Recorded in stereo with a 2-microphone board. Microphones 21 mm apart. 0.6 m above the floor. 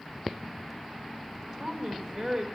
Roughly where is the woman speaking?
Right.